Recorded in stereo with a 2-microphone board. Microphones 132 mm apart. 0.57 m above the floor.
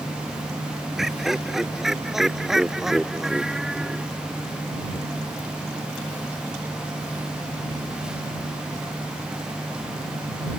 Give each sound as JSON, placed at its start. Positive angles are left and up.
{"t": 1.0, "sound": "laughter", "side_deg": 0}